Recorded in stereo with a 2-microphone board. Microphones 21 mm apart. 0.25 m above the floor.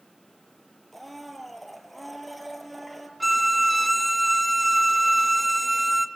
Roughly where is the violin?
Centre.